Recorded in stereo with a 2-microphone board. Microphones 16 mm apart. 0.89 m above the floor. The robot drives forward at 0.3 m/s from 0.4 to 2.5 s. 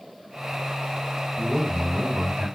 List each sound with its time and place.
1.4 s a man speaking: 15° left (ahead or behind), 3 m; by 2.5 s 10° left (ahead or behind), 3 m